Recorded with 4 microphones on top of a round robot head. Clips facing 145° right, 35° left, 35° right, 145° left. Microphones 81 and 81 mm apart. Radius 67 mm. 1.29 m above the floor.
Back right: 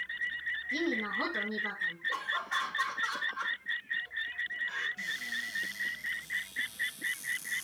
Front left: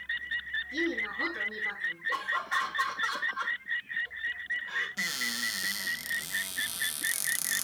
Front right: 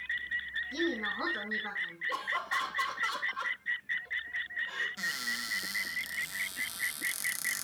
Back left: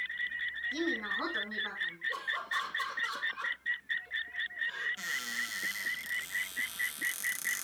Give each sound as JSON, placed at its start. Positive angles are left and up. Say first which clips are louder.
{"t": 0.7, "sound": "a woman speaking", "louder": "even, front right 2 dB", "azimuth_deg": -120, "distance_m": 1.9}
{"t": 2.1, "sound": "laughter", "louder": "front left 4 dB, front right 4 dB", "azimuth_deg": -50, "distance_m": 3.0}
{"t": 5.0, "sound": "a cupboard door", "louder": "front left 3 dB, front right 1 dB", "azimuth_deg": 45, "distance_m": 0.6}